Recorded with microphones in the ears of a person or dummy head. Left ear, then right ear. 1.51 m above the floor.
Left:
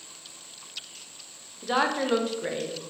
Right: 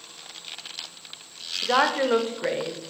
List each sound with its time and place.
1.6 s a woman speaking: 20° right (ahead or behind), 0.6 m